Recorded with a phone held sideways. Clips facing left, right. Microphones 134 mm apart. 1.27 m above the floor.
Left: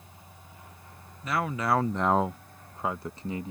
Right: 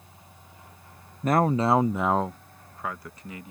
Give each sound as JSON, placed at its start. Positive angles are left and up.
{"t": 1.2, "sound": "a man speaking", "side_deg": -55}